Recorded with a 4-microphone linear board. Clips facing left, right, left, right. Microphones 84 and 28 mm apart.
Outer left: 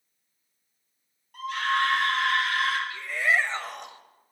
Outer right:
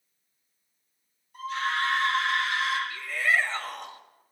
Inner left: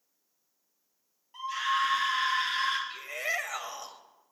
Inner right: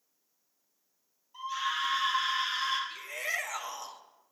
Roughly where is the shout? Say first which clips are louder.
Outer left 1 dB, inner left 2 dB; left.